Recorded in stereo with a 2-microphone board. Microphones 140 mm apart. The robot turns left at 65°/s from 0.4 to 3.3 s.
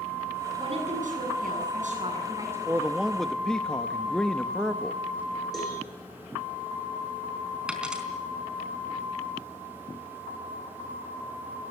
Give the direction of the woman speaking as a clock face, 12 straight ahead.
1 o'clock.